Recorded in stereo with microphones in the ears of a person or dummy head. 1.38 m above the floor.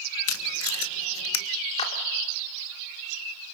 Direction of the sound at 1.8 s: 35° left (ahead or behind).